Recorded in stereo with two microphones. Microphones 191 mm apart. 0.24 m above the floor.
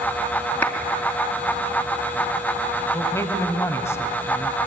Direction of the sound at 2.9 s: 15° left (ahead or behind).